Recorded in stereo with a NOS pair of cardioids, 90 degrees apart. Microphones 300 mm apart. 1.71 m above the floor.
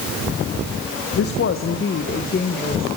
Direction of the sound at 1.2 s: 55° left.